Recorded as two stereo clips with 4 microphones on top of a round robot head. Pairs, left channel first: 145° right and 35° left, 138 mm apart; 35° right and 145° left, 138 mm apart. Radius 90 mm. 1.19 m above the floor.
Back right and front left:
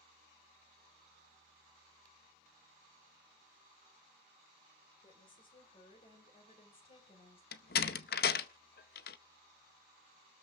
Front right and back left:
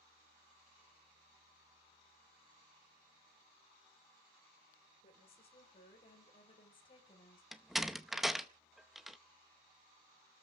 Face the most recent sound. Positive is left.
turn(degrees=-125)